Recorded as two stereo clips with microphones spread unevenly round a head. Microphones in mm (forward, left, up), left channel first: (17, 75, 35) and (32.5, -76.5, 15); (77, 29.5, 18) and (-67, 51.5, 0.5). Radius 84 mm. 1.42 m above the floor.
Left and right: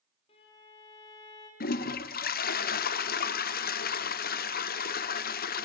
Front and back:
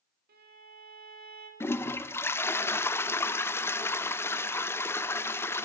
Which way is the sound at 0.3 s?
155° left.